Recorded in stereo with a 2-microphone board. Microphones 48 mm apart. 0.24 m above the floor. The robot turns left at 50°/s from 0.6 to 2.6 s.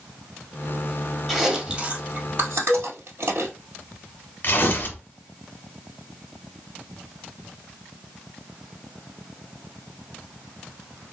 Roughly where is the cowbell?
Centre.